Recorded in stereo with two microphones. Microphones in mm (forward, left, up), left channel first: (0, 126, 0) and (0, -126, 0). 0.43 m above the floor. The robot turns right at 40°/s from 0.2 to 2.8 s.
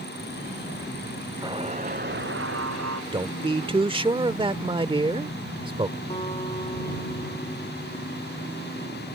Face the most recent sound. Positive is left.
turn(degrees=25)  # may be behind; listen again after turning